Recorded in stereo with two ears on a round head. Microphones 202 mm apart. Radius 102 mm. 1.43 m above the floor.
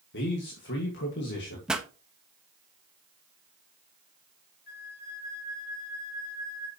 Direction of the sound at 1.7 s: 5° right (ahead or behind).